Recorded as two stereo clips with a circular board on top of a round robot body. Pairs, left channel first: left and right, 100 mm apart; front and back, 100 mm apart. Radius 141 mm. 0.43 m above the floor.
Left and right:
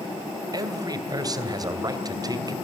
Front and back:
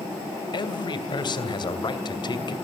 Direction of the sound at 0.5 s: 40° right.